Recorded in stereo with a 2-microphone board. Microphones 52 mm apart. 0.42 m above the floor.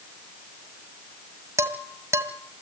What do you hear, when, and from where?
1.6 s dishes clattering: 60° right (ahead or behind), 2 m